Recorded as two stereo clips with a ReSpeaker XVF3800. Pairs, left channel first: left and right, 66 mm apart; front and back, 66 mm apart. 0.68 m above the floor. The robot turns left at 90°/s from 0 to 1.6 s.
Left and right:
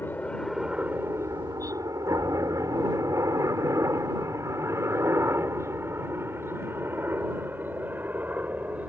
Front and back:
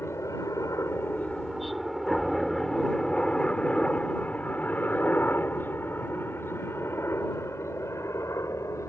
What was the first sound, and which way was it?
A helicopter, 40° left.